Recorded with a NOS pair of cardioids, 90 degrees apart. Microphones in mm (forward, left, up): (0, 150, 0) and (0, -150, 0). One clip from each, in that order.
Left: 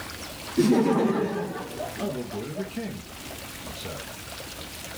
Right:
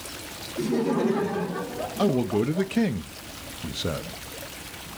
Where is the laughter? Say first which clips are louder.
Left 4 dB; 45° left, 0.7 m; by 2.7 s 35° right, 1.8 m.